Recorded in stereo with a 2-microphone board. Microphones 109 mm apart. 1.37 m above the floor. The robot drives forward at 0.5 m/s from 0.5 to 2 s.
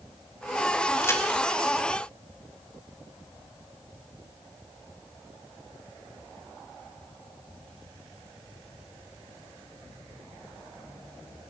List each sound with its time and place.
1.0 s a crack: 25° left (ahead or behind), 2.5 m